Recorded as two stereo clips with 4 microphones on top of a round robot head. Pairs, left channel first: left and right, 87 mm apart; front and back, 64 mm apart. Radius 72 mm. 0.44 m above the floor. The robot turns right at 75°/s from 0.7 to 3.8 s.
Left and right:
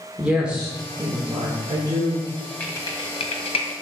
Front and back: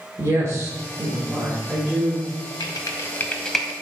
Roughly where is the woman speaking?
Behind.